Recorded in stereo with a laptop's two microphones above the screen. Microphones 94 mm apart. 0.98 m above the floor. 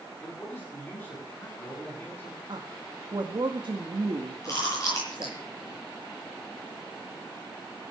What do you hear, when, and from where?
0.2 s a man speaking: 25° left (ahead or behind), 9 m
2.5 s a woman speaking: 60° right (ahead or behind), 1.8 m
4.4 s chewing: 35° left (ahead or behind), 8 m